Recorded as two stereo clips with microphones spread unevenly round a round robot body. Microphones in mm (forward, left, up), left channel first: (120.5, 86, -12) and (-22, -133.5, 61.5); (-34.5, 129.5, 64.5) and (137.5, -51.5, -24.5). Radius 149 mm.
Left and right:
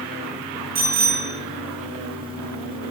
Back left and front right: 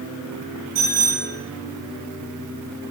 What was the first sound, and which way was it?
A bicycle bell, 120° right.